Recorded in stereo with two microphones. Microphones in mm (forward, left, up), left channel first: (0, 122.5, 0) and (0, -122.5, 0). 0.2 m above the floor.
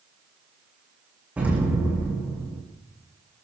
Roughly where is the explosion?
Centre.